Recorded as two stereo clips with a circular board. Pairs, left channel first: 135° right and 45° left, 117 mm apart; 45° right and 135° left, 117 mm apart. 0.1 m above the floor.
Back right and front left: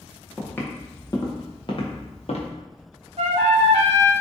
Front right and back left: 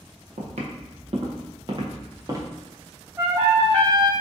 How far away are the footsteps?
About 1.3 m.